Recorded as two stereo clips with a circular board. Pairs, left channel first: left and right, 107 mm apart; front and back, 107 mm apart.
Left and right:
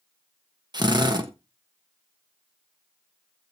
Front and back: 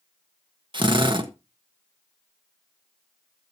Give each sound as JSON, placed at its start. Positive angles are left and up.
{"t": 0.7, "sound": "a drill", "azimuth_deg": -140, "distance_m": 1.3}